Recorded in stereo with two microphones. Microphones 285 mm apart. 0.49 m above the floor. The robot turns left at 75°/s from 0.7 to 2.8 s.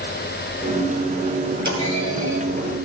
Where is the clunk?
75° right (ahead or behind), 8 m; by 2.9 s 20° right (ahead or behind), 8 m.